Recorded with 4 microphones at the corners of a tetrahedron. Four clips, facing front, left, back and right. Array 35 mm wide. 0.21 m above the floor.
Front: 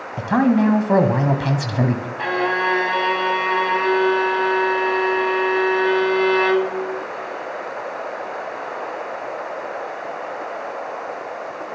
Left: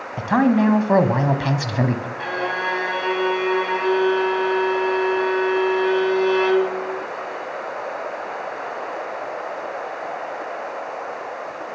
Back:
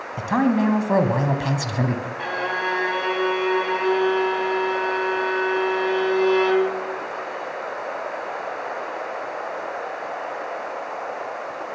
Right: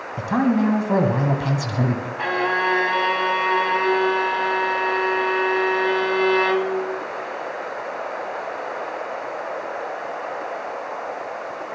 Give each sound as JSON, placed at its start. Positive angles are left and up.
{"t": 0.2, "sound": "a man speaking", "azimuth_deg": 70, "distance_m": 1.2}
{"t": 2.2, "sound": "a violin", "azimuth_deg": -45, "distance_m": 1.3}